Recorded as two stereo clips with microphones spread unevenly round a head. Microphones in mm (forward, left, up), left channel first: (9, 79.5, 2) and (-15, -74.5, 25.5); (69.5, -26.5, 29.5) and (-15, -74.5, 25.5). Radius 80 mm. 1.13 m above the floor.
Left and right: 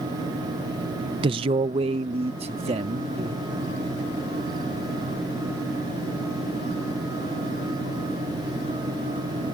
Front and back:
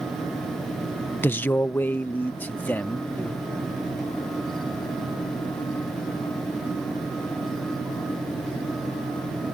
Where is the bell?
I don't hear a bell.